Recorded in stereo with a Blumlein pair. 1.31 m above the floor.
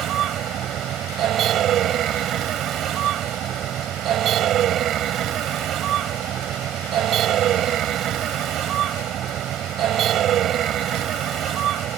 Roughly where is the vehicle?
Ahead right.